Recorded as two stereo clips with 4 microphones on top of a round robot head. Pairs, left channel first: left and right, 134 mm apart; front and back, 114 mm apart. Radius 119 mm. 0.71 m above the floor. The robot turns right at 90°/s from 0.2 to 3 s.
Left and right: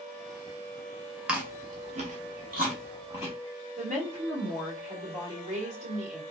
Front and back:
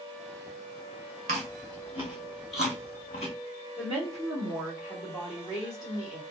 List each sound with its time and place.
1.3 s chewing: 170° right, 0.5 m; by 3.4 s 15° right, 0.5 m
3.8 s a woman speaking: 60° right, 1.9 m